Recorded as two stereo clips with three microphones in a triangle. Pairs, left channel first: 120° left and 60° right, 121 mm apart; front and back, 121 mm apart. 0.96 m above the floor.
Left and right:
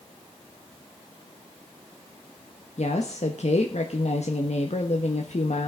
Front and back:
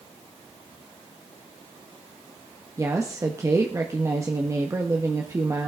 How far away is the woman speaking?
About 1.2 m.